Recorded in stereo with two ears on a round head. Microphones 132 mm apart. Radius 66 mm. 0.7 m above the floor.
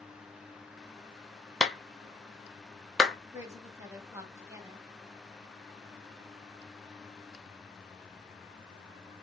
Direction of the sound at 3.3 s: 20° right (ahead or behind).